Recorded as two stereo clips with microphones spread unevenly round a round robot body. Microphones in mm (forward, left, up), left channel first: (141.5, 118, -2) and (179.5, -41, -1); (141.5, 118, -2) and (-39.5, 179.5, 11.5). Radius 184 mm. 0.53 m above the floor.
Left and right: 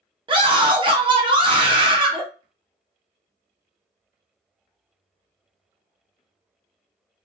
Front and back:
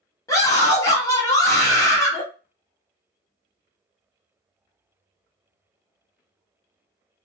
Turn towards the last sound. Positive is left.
turn(degrees=-65)